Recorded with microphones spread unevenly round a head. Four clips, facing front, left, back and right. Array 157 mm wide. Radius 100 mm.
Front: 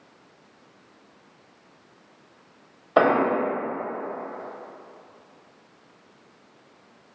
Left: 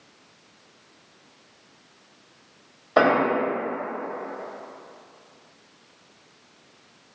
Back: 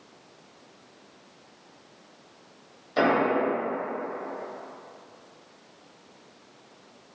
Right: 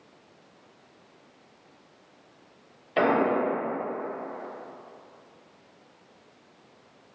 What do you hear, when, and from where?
3.0 s an explosion: 35° left, 0.7 m